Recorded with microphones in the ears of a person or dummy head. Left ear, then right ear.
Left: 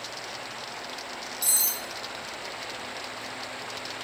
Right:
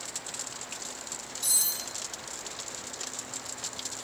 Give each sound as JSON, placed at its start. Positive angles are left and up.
{"t": 1.4, "sound": "cutlery clinking", "side_deg": 45, "distance_m": 0.7}